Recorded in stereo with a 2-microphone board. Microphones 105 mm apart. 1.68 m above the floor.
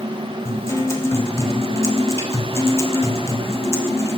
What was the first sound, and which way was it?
A guitar, 25° left (ahead or behind).